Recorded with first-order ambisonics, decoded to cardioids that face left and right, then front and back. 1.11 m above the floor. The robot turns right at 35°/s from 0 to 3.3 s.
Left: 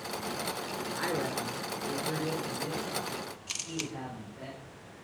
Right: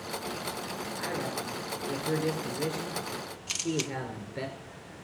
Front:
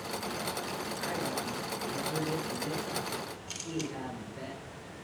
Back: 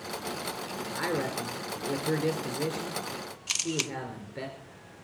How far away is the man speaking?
About 3.5 m.